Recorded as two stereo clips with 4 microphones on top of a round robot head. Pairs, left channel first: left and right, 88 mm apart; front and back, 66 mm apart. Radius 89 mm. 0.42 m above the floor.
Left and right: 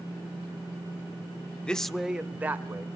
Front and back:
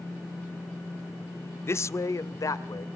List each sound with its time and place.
1.6 s a man speaking: 15° left, 1.0 m; by 2.9 s 30° right, 1.8 m